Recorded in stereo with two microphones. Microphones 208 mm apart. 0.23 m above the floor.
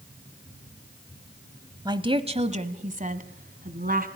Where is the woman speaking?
20° right (ahead or behind), 1.0 m; by 4.1 s 45° right (ahead or behind), 1.9 m.